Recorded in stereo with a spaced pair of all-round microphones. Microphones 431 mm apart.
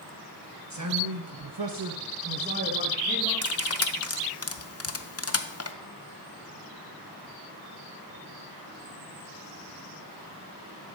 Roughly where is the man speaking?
Right.